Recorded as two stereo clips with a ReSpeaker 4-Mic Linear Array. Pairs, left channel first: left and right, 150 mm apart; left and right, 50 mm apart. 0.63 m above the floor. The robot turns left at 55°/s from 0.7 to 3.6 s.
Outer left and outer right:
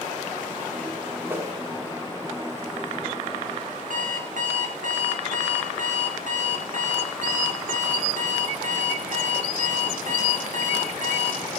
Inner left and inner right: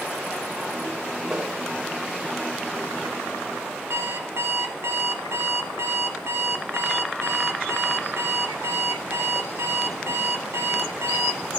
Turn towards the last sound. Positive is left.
turn(degrees=-65)  # may be behind; listen again after turning